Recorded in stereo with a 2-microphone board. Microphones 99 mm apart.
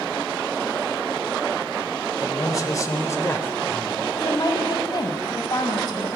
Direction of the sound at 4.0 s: 45° left (ahead or behind).